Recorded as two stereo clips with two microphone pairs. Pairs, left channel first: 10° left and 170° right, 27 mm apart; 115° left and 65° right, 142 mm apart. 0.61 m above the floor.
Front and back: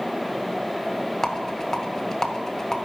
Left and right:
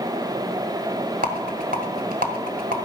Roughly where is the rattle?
Ahead right.